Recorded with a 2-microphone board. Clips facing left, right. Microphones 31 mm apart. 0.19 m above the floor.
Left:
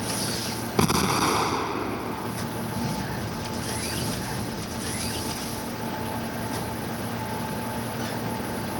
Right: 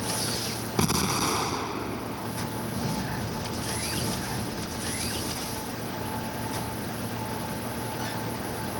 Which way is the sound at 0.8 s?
20° left (ahead or behind).